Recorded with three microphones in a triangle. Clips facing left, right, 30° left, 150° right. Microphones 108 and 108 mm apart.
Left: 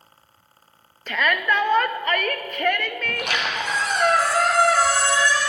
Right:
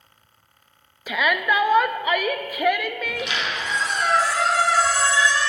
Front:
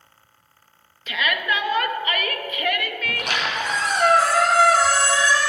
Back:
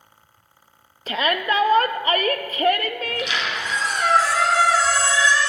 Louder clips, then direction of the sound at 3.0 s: Left 1 dB, even; 65° left.